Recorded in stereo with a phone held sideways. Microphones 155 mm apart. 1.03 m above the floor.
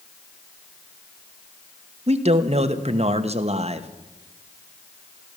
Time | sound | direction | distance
2.1 | a man speaking | 45° right (ahead or behind) | 1.0 m